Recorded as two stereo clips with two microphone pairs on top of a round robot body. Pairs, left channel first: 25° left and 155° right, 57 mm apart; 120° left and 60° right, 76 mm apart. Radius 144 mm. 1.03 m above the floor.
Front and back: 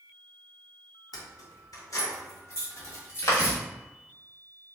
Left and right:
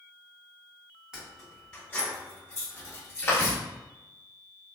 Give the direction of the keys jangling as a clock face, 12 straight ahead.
11 o'clock.